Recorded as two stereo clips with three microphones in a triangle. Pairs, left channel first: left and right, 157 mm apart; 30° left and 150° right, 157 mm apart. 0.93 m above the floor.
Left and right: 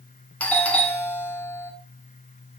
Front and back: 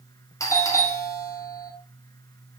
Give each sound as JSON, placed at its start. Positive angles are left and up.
{"t": 0.4, "sound": "a doorbell", "azimuth_deg": 30, "distance_m": 0.6}